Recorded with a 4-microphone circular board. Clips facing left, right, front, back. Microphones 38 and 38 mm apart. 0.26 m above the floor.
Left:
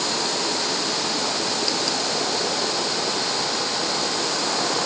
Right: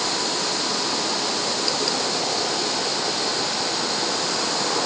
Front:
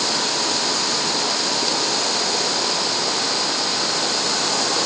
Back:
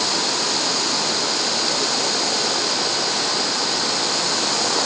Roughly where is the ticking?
No ticking in this recording.